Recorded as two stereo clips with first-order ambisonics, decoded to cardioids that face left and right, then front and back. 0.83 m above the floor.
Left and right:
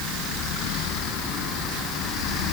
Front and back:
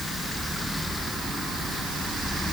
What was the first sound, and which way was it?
Only background noise.